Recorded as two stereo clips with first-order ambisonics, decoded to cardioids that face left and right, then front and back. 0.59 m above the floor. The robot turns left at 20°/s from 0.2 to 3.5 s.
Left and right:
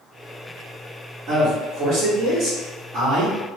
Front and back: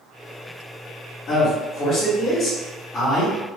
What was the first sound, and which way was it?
A man speaking, 45° right.